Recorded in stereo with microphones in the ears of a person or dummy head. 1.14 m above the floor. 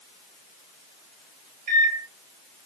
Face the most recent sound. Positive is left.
turn(degrees=-50)  # may be behind; listen again after turning